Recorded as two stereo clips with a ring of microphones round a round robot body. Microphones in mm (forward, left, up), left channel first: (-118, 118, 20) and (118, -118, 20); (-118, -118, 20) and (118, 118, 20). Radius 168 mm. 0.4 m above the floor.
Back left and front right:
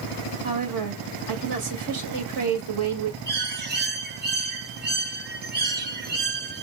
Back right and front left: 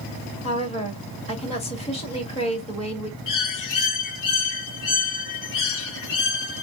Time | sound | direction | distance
0.4 | a woman speaking | 65° right | 1.7 m
3.3 | a bird | 105° right | 1.1 m